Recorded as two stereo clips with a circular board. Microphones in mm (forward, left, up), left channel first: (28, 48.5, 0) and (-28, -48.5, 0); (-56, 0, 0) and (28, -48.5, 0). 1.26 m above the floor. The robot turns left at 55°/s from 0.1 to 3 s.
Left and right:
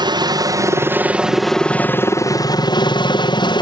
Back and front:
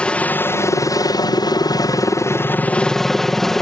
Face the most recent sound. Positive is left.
turn(degrees=65)